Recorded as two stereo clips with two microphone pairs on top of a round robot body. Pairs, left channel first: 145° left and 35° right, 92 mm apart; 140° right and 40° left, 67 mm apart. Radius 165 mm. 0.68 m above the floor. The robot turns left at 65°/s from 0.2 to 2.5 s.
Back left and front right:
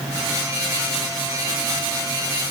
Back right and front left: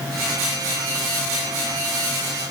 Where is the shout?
I don't hear a shout.